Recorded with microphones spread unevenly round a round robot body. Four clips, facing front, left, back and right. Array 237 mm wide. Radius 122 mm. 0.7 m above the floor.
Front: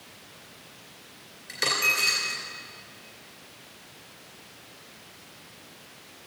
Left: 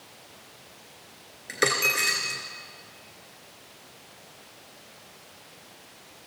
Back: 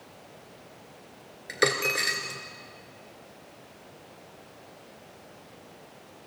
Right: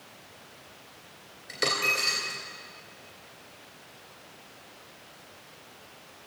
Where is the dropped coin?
135° left, 2.0 m.